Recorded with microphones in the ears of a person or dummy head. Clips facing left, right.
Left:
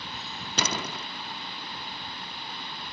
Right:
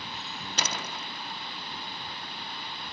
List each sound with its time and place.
0.6 s a door slam: 75° left (ahead or behind)